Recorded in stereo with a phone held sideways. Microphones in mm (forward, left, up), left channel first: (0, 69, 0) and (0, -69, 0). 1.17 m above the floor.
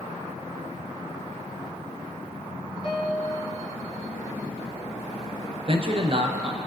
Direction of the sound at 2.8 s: 45° left (ahead or behind).